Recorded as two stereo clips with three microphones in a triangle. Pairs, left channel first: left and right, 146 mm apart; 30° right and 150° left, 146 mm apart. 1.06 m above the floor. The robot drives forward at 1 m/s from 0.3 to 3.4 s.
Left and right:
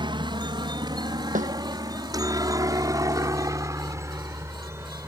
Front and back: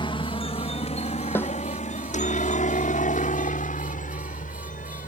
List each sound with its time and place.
0.0 s a helicopter: 60° right; by 5.1 s 20° right
1.4 s a snare drum: 105° right